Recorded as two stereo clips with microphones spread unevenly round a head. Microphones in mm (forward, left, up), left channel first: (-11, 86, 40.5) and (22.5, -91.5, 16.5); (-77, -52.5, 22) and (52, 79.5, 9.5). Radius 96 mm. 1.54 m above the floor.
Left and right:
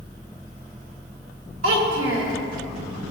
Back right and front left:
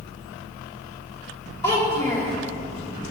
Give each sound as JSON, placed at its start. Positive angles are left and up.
{"t": 1.6, "sound": "a child speaking", "azimuth_deg": -60, "distance_m": 2.0}